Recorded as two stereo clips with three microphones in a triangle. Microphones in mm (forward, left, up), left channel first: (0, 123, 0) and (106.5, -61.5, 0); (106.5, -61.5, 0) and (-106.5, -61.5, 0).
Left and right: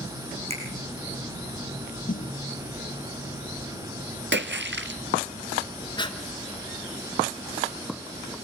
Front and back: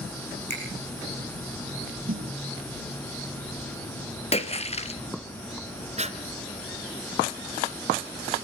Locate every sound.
0.5 s a finger snap: 120° right, 7 m
2.1 s a snare drum: 170° left, 1.5 m
4.3 s a splash: 55° right, 1.3 m
6.0 s breathing: 165° left, 1.4 m